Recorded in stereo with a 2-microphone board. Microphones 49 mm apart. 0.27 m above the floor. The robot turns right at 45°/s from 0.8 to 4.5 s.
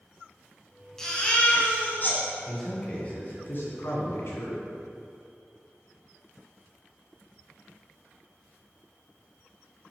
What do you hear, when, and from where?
1.0 s a baby crying: 15° left, 1.7 m; by 2.2 s 70° left, 1.7 m
2.5 s a man speaking: 5° left, 2.5 m; by 4.7 s 100° left, 2.5 m